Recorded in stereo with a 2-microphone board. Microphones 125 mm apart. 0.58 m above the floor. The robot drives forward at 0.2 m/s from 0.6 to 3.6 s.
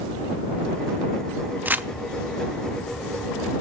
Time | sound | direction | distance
1.6 | crumpling | 15° right (ahead or behind) | 0.5 m